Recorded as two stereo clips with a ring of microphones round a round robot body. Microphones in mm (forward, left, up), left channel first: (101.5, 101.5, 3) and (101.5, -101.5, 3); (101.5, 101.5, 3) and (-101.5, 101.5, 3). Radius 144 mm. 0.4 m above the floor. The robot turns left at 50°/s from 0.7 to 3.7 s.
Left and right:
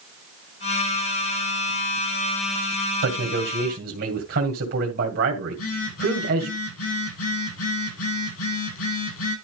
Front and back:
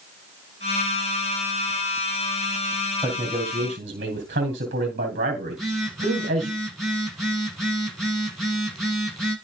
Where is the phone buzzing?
90° left, 6.5 m.